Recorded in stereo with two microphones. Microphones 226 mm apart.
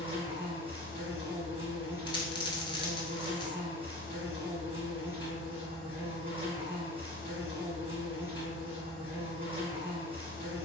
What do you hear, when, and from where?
0.0 s an insect: 25° right (ahead or behind), 1.3 m
2.1 s a dropped coin: 20° left (ahead or behind), 0.6 m